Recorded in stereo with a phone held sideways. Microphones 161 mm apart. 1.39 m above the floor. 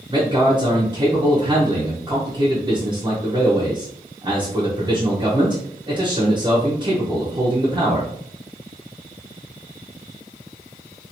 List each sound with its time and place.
0.1 s a man speaking: 30° right (ahead or behind), 0.8 m